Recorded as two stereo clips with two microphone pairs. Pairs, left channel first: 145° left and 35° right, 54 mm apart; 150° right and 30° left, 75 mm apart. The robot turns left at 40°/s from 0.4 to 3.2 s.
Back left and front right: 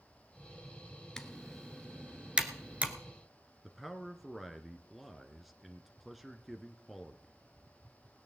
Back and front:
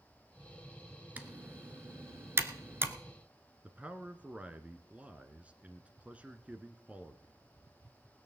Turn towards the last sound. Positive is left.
turn(degrees=55)